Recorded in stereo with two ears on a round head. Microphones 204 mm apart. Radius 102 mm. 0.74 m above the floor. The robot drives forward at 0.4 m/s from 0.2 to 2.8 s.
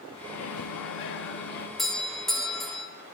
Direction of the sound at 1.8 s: Centre (ahead or behind).